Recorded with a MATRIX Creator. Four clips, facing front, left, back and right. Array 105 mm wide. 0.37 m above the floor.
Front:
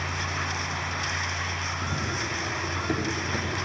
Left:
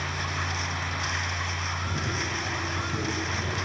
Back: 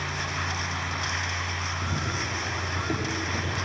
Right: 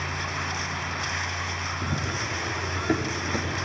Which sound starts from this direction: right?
Running footsteps, at 1.8 s.